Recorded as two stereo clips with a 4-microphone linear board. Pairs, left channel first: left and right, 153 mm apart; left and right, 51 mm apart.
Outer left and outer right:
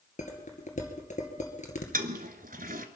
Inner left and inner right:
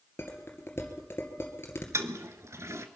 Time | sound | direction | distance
0.2 | dishes clattering | 50° left (ahead or behind) | 2 m
1.9 | a toilet flushing | 65° right (ahead or behind) | 1.0 m